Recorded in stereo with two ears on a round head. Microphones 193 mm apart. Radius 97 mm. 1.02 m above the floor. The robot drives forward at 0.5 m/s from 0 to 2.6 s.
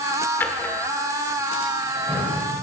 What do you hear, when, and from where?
0.4 s a drawer: 10° left (ahead or behind), 1.6 m; by 2.4 s 5° left (ahead or behind), 2.5 m